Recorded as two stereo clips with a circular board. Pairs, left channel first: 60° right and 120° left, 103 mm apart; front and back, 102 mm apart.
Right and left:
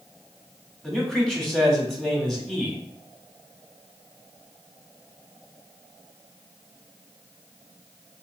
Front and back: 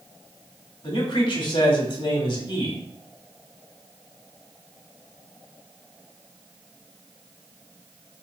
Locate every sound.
0.8 s a man speaking: 25° left, 1.4 m